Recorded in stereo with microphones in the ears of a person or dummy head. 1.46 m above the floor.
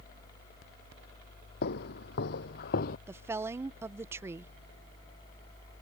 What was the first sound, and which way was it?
Footsteps, 70° left (ahead or behind).